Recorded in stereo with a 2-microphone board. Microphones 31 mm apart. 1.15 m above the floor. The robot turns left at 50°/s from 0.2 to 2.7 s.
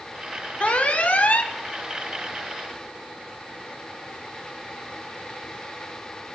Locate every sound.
0.6 s an alarm: 120° left, 1.1 m; by 1.5 s 70° left, 1.1 m